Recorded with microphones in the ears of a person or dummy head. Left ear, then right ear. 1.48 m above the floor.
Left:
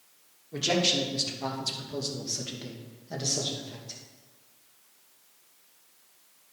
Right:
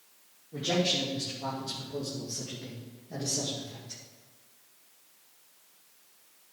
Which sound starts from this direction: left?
A man speaking, at 0.5 s.